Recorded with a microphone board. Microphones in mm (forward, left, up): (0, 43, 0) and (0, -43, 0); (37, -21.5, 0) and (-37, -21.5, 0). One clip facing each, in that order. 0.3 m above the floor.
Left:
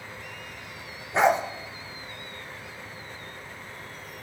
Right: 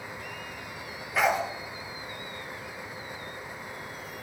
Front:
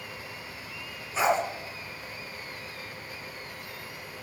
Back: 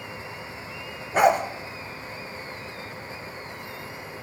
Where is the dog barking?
150° left, 1.7 m.